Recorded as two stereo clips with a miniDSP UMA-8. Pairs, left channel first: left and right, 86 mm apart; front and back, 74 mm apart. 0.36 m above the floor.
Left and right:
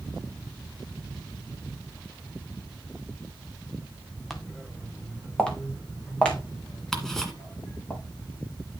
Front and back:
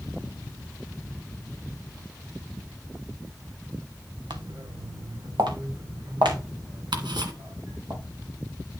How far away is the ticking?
About 1.8 m.